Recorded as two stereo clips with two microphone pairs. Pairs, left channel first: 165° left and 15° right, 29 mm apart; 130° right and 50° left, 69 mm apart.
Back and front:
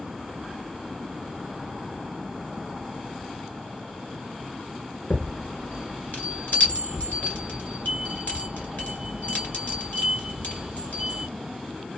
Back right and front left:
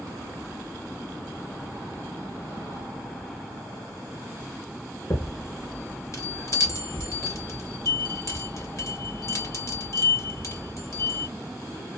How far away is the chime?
About 1.7 m.